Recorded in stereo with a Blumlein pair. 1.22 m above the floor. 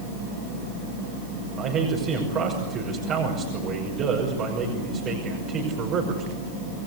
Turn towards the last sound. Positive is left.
turn(degrees=-30)